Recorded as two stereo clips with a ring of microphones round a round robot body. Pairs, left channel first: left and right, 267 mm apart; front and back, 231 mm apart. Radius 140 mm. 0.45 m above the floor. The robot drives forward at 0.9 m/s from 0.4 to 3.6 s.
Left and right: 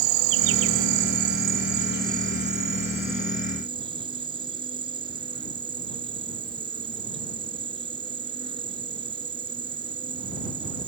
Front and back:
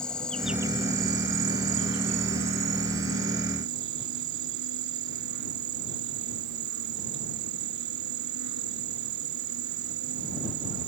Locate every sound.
0.0 s an insect: 85° right; by 10.9 s 165° right